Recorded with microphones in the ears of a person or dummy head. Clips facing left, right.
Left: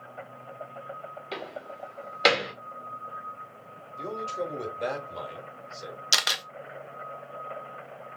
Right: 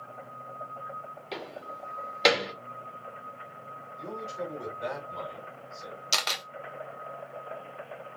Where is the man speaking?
75° left (ahead or behind), 1.8 m.